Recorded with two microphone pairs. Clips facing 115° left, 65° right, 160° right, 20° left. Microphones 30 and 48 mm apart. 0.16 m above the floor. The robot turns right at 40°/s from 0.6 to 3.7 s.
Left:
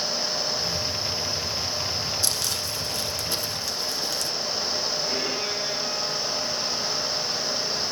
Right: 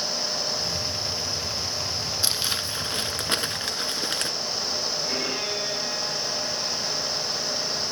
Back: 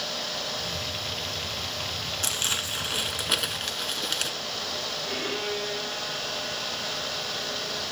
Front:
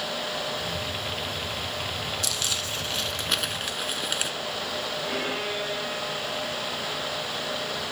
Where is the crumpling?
120° right, 1.1 m; by 4.3 s 60° right, 1.1 m.